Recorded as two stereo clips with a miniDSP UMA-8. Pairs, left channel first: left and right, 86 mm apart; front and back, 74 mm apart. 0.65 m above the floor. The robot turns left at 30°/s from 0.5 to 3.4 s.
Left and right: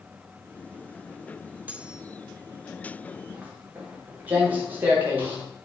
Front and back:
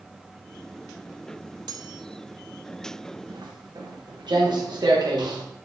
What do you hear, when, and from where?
1.7 s cutlery clinking: 160° right, 1.5 m; by 2.1 s 170° right, 1.5 m
3.3 s footsteps: 160° right, 9.5 m; by 5.4 s 155° right, 9.5 m